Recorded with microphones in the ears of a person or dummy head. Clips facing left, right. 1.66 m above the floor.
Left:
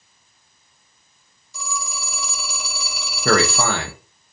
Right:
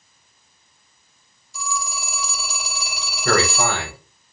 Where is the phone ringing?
65° left (ahead or behind), 1.2 m.